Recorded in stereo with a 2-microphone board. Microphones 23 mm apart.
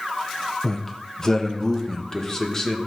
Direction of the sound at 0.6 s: 25° left (ahead or behind).